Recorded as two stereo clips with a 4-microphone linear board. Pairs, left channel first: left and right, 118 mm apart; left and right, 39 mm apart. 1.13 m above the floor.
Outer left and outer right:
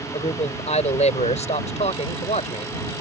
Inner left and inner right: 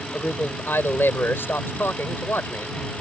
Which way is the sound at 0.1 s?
75° left (ahead or behind).